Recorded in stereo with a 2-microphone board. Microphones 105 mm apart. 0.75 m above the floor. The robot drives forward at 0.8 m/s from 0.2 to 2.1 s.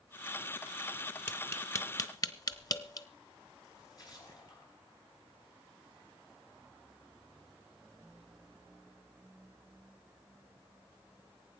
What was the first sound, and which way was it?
Tapping, 20° left (ahead or behind).